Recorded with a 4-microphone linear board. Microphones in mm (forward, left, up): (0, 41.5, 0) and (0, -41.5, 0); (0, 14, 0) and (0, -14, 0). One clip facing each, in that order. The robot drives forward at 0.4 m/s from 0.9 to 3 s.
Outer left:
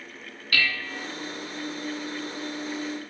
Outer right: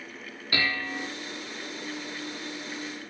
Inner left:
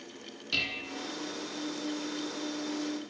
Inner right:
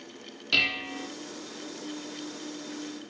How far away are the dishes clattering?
About 1.9 m.